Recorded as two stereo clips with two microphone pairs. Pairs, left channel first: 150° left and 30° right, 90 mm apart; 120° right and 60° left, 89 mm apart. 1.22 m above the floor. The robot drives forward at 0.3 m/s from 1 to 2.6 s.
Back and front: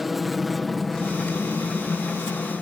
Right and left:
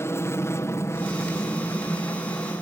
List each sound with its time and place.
0.0 s an aircraft: 120° right; by 2.6 s 130° right